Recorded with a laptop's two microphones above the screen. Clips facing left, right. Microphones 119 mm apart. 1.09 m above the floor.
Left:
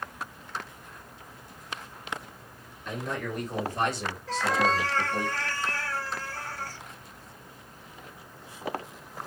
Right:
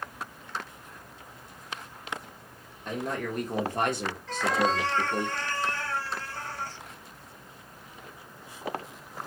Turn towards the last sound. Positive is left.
turn(degrees=0)  # may be behind; listen again after turning